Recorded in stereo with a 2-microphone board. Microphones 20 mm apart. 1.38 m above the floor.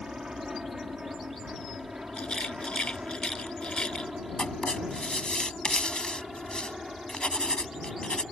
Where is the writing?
55° left (ahead or behind).